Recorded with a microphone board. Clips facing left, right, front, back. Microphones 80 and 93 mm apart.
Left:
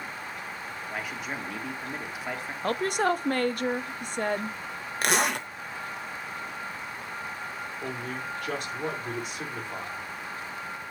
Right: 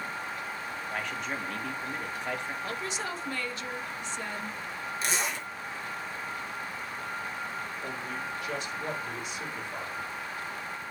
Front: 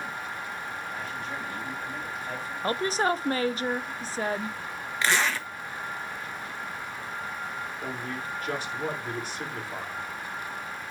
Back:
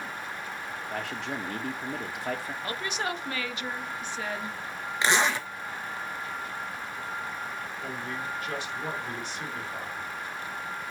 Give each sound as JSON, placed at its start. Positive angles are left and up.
{"t": 0.9, "sound": "a man speaking", "azimuth_deg": 175, "distance_m": 1.5}
{"t": 2.6, "sound": "a woman speaking", "azimuth_deg": 55, "distance_m": 0.5}
{"t": 5.0, "sound": "a zipper", "azimuth_deg": 110, "distance_m": 1.0}
{"t": 7.8, "sound": "a man speaking", "azimuth_deg": 50, "distance_m": 3.5}